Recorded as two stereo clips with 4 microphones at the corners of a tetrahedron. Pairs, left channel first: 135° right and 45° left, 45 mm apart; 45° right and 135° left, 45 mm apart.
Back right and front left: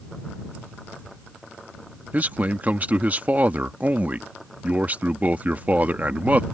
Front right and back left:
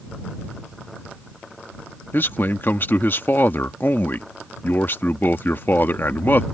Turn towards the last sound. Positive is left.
turn(degrees=-10)